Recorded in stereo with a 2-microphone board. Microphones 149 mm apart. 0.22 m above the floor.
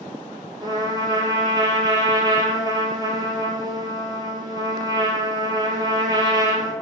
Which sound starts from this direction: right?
A trumpet, at 0.6 s.